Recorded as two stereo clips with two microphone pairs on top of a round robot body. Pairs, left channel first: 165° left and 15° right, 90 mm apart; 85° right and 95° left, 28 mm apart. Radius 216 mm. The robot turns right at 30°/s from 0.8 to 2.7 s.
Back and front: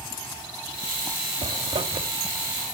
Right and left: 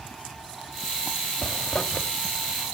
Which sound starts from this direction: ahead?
A zipper, at 1.4 s.